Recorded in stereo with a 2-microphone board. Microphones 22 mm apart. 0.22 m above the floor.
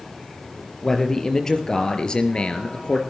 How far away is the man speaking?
About 4 m.